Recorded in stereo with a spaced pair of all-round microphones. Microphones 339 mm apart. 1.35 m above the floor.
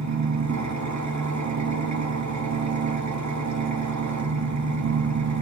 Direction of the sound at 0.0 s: 55° right (ahead or behind).